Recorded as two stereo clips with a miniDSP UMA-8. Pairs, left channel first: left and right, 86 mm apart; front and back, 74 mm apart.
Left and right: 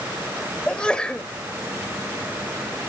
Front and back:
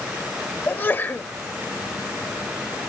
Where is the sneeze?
25° left, 0.9 m.